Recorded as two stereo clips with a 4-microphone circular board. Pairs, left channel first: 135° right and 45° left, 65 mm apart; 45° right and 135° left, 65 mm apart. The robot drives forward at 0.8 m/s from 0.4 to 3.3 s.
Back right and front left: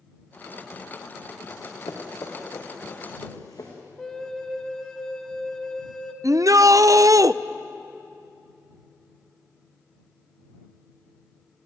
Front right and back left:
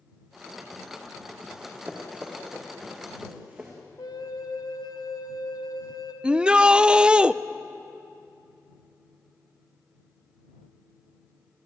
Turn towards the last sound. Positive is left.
turn(degrees=60)